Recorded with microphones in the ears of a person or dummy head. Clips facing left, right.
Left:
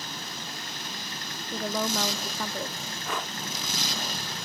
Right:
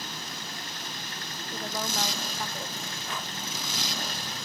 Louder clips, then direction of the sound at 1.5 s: Left 5 dB; 80° left.